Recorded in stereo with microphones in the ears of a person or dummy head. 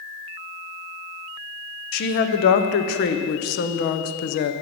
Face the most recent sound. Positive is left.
turn(degrees=60)  # may be behind; listen again after turning